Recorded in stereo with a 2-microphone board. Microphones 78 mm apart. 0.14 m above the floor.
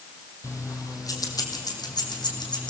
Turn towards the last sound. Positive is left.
turn(degrees=70)  # may be behind; listen again after turning